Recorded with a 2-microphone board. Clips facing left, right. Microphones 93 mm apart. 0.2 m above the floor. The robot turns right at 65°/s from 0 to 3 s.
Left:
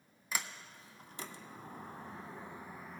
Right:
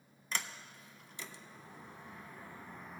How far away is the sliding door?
About 0.5 m.